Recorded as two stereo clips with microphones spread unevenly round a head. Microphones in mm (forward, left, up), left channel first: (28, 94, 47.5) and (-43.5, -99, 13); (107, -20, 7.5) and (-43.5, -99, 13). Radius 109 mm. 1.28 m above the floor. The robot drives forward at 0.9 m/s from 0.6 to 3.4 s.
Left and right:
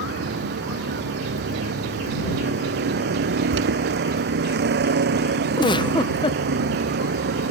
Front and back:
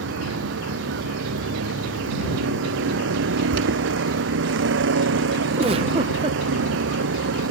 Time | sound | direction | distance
0.0 | a vehicle | 150° right | ?
3.5 | an alarm | 140° right | ?
5.6 | a giggle | 140° left | ?